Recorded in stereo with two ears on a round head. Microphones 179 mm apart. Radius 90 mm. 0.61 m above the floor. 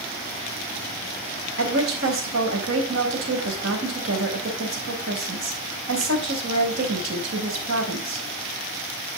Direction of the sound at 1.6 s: 75° right (ahead or behind).